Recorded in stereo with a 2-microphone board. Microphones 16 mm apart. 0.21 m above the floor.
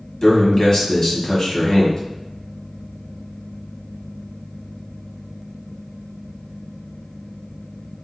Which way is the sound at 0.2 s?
30° left (ahead or behind).